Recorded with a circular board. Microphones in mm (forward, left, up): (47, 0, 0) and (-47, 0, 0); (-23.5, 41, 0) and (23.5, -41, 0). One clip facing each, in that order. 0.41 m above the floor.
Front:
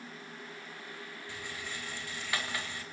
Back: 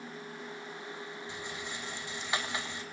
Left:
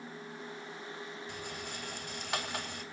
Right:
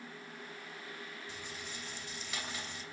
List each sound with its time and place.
1.3 s a rattle: 115° left, 2.5 m